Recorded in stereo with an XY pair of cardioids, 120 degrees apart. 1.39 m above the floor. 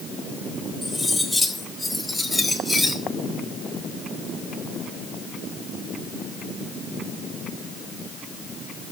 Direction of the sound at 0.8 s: Straight ahead.